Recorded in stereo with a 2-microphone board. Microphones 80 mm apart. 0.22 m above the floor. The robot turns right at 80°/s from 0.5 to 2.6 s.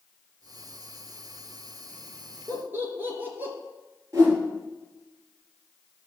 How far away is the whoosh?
About 4.5 m.